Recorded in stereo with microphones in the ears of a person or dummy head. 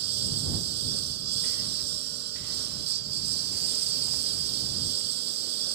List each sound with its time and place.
0.0 s a lawn mower: 65° right (ahead or behind)